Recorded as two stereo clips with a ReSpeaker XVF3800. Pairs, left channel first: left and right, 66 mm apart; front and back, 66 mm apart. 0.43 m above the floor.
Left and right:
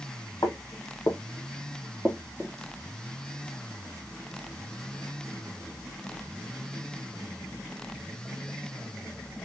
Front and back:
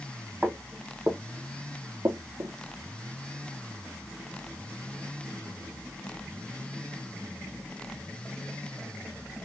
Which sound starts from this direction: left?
Footsteps, at 0.4 s.